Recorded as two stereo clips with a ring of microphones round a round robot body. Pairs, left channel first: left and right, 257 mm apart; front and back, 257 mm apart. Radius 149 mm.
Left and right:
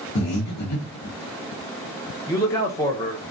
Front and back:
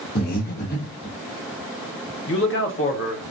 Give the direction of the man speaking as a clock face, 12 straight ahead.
11 o'clock.